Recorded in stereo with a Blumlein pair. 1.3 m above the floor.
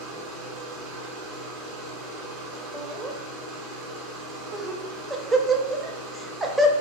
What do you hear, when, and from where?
0.0 s a machine running: 40° right, 0.9 m
2.7 s laughter: 10° right, 0.5 m